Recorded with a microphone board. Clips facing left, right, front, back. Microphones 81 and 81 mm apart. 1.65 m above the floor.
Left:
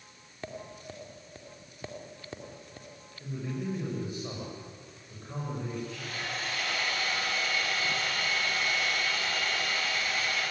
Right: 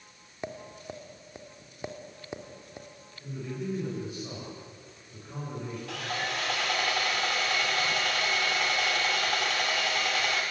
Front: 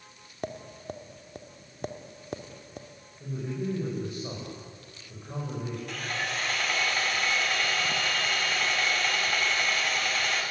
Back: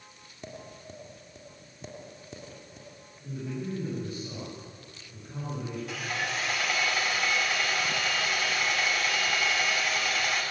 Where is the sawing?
95° right, 5.5 m.